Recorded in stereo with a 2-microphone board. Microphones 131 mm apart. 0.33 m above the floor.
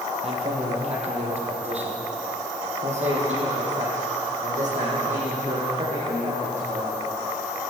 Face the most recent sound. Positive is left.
turn(degrees=-70)  # may be behind; listen again after turning